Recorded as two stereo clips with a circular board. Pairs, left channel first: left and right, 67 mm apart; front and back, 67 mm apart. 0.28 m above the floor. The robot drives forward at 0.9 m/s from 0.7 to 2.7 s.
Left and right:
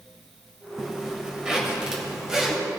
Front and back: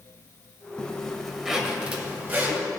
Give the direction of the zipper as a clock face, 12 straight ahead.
1 o'clock.